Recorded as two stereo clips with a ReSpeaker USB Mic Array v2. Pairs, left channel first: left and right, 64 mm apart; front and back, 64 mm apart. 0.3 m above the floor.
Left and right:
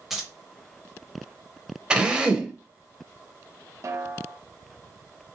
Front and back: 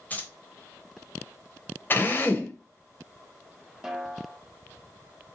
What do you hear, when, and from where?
0.1 s keys jangling: 15° right, 0.6 m
1.9 s a drill: 25° right, 0.5 m
3.8 s a snare drum: 105° right, 0.6 m